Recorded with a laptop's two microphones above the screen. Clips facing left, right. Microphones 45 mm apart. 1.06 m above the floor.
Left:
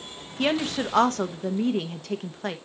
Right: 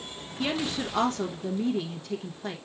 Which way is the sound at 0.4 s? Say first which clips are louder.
Left 5 dB; 65° left (ahead or behind).